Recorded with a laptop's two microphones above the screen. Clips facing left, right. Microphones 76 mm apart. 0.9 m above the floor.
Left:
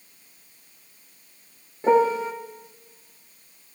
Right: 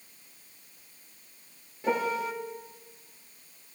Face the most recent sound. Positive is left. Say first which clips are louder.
# left 9 dB
turn(degrees=35)  # may be behind; listen again after turning